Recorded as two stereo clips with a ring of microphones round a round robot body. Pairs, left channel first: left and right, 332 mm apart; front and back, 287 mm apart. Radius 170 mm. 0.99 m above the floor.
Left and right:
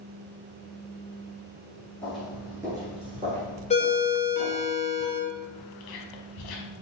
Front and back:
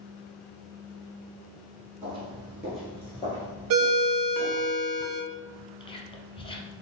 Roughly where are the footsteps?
Behind.